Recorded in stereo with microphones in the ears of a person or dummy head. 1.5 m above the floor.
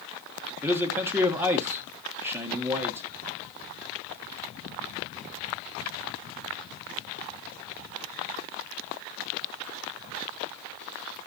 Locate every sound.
0.6 s a man speaking: 10° right (ahead or behind), 1.2 m